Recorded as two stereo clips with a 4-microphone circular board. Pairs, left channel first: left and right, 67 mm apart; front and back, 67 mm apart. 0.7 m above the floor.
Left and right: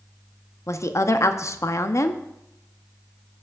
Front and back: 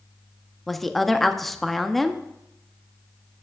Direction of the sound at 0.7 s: 85° left.